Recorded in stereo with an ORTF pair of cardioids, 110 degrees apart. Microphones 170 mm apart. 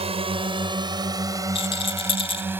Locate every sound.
0.0 s a drone: 35° right; by 2.6 s 10° right
1.6 s a rattle: 30° left